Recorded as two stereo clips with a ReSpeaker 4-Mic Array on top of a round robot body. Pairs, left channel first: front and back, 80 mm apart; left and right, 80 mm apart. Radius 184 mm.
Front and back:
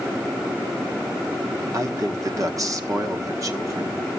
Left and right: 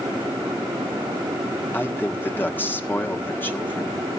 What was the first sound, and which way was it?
A man speaking, 150° left.